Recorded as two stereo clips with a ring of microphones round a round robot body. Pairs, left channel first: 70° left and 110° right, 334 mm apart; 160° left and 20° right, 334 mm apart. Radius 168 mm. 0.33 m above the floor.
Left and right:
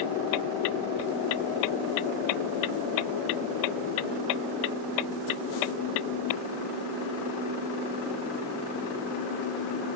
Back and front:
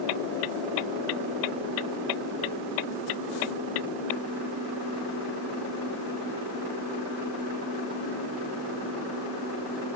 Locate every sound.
Only background noise.